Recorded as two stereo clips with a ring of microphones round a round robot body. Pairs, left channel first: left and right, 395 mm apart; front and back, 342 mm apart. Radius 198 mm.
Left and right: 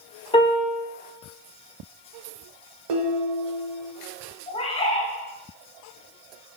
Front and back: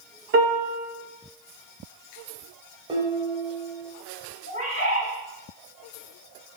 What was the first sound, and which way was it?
A piano, 155° left.